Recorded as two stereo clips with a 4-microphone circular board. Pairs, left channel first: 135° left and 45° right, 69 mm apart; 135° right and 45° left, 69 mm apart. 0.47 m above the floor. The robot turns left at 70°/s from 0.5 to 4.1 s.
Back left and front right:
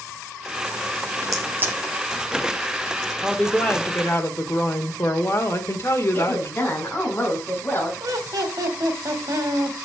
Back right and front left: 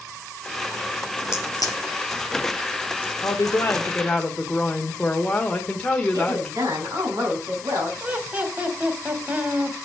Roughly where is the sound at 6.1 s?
Left.